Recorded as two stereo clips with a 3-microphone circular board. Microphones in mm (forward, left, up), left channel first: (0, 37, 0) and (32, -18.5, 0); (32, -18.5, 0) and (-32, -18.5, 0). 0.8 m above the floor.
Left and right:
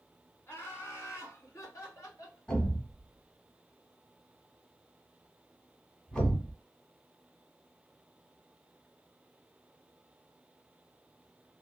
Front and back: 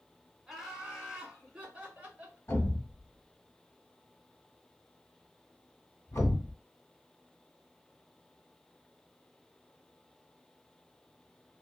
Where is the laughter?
95° left, 1.1 m; by 2.4 s 115° left, 2 m.